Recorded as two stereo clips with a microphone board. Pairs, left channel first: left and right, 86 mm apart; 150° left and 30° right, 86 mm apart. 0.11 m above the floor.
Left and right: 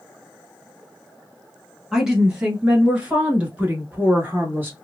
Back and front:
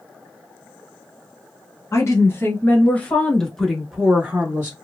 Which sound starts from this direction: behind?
A woman speaking, at 1.9 s.